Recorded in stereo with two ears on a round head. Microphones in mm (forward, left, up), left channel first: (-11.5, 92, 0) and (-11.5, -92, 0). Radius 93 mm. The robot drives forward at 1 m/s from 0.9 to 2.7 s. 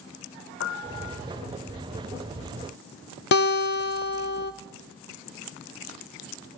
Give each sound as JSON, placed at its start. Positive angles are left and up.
{"t": 0.6, "sound": "a piano", "side_deg": 65, "distance_m": 0.8}
{"t": 3.3, "sound": "a guitar", "side_deg": 55, "distance_m": 0.6}